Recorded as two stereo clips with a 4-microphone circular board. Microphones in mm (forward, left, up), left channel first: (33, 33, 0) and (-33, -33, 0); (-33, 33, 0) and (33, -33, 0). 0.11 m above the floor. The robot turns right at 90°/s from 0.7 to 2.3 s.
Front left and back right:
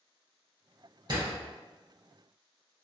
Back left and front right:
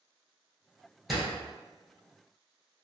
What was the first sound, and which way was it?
A door slam, 135° right.